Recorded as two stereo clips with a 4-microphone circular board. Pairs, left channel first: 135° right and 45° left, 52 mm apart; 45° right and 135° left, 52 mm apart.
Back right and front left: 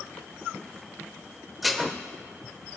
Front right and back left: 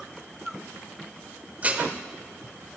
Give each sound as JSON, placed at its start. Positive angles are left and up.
{"t": 1.6, "sound": "dishes clattering", "azimuth_deg": 135, "distance_m": 0.7}